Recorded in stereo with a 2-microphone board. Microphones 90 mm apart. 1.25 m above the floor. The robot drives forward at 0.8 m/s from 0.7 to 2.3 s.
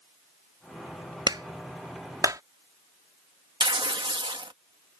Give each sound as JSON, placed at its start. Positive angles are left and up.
{"t": 1.3, "sound": "a clap", "side_deg": -60}
{"t": 3.6, "sound": "tearing paper", "side_deg": -70}